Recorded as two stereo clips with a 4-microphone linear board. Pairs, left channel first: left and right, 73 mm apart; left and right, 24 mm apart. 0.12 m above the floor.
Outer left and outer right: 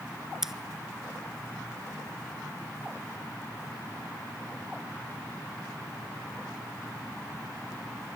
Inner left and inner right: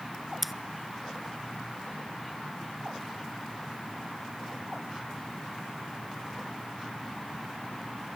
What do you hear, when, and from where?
0.4 s scissors: 5° right (ahead or behind), 0.6 m